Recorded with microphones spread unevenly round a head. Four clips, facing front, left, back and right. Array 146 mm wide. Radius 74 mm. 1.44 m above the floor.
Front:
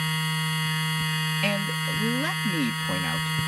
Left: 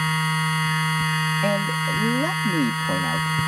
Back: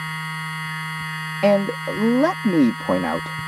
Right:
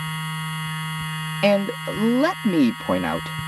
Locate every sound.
0.0 s a machine running: 85° left
1.4 s a man speaking: 160° right